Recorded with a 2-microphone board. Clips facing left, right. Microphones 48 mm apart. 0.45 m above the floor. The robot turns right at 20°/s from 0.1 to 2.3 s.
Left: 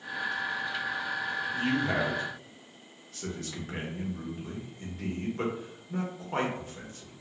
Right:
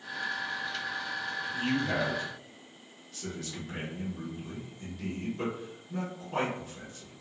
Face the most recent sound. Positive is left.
turn(degrees=45)  # may be behind; listen again after turning